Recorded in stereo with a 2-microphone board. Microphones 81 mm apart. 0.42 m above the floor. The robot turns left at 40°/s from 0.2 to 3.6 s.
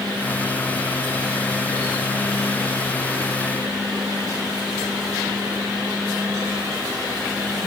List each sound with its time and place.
Only background noise.